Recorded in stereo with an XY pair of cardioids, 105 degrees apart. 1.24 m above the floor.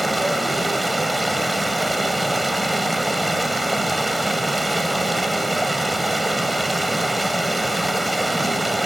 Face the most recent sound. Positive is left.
turn(degrees=-10)